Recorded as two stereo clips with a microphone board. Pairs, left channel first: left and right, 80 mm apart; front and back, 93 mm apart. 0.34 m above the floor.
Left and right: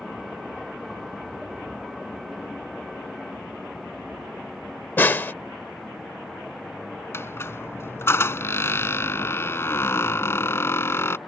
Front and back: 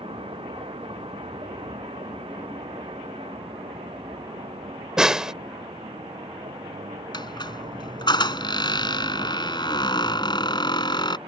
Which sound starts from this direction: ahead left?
A squeak, at 7.1 s.